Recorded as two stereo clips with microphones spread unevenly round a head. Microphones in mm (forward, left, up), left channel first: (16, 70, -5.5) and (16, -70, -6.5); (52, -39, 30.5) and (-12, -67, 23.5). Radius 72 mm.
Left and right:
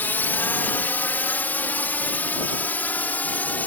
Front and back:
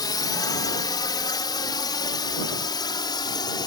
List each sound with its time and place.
0.0 s a drone: 15° left; by 3.7 s 10° left